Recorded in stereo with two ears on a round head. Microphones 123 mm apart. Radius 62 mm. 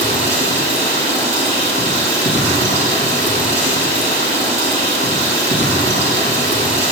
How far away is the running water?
About 4.5 m.